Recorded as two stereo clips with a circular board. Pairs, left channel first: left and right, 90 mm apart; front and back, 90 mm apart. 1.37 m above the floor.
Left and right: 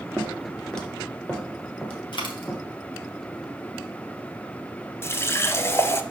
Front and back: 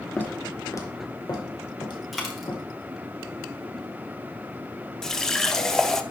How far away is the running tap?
About 0.5 m.